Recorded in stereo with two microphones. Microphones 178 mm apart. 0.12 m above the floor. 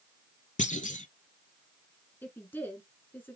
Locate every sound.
0.6 s a clunk: 45° left (ahead or behind), 0.6 m
2.2 s a woman speaking: 10° left (ahead or behind), 1.2 m